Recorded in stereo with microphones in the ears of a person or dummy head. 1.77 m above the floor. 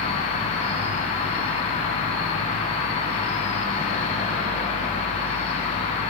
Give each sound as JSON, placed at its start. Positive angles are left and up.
{"t": 0.0, "sound": "an insect", "side_deg": 35, "distance_m": 1.2}